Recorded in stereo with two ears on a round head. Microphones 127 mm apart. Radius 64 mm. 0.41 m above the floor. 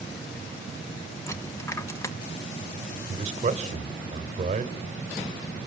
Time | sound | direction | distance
1.3 | a dropped coin | 20° left (ahead or behind) | 1.7 m
3.1 | a man speaking | 50° right (ahead or behind) | 1.6 m